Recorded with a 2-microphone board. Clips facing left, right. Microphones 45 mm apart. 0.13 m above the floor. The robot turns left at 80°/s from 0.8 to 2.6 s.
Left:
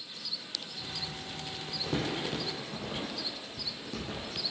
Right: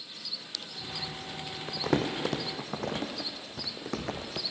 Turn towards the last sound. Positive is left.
turn(degrees=-60)  # may be behind; listen again after turning